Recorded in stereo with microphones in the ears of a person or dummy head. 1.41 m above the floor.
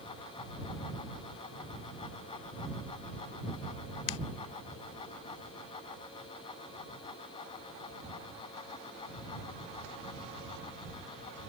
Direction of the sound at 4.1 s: 80° left.